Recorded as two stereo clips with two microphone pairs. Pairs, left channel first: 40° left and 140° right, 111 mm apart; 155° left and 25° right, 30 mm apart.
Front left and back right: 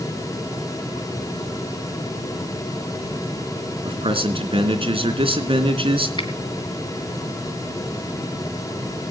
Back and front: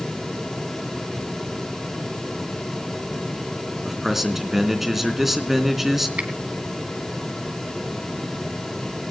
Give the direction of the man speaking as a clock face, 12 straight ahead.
4 o'clock.